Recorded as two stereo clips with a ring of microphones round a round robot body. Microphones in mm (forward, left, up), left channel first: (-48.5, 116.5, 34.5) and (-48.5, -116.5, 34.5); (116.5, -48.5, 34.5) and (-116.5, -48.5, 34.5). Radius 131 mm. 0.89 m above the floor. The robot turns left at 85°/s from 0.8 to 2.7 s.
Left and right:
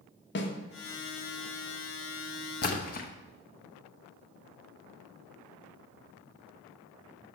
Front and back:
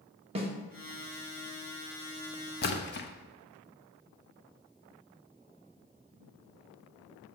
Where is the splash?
45° left, 0.9 m; by 3.1 s 40° left, 0.9 m.